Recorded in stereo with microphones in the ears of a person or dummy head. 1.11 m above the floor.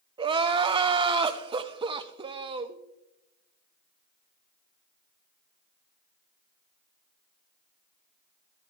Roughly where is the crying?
Right.